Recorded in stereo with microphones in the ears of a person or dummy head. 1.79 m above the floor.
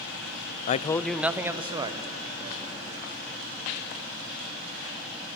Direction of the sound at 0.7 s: 45° left (ahead or behind).